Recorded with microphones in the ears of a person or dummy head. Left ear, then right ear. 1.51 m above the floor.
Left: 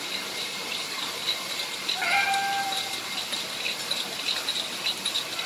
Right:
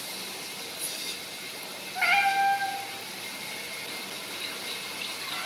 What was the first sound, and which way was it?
A cat meowing, 25° right (ahead or behind).